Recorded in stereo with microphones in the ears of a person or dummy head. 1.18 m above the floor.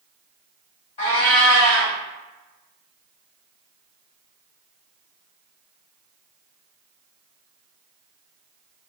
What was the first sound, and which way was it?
A cat meowing, 30° left (ahead or behind).